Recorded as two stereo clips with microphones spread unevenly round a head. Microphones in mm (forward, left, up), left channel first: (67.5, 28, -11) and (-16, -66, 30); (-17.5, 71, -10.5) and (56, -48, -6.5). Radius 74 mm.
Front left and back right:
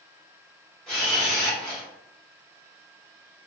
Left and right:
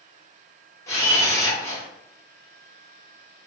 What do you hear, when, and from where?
0.9 s a camera shutter: 165° left, 1.2 m